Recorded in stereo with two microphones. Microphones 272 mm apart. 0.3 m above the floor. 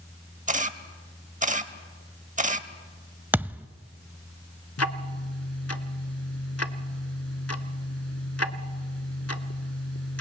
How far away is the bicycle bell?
No bicycle bell in this recording.